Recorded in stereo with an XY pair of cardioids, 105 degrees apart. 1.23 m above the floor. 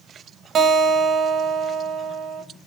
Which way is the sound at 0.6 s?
55° right.